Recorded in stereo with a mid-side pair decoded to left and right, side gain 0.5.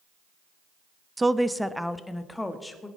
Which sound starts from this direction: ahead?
A woman speaking, at 1.2 s.